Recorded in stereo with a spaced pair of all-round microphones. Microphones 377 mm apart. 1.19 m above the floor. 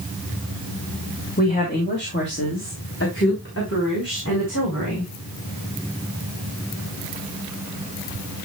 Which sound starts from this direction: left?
A woman speaking, at 1.4 s.